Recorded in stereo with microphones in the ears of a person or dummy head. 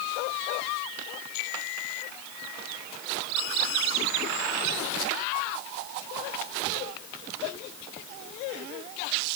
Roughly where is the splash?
No splash in this recording.